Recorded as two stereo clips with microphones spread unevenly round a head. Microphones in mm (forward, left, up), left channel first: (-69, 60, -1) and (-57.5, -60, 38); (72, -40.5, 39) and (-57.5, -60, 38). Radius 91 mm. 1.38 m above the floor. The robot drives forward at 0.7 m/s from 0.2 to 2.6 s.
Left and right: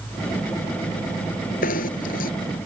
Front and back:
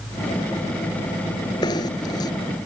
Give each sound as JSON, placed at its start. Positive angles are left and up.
{"t": 1.6, "sound": "knocking", "azimuth_deg": 75}